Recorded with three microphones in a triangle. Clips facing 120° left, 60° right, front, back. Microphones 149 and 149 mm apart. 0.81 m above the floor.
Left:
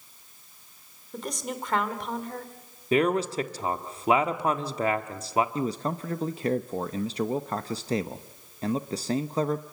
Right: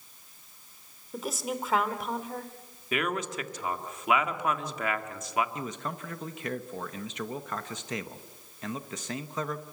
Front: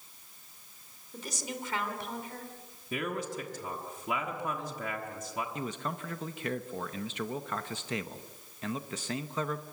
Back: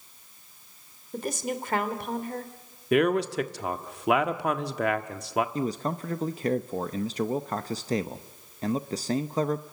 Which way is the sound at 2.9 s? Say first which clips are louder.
Left 8 dB, back 12 dB; 175° left.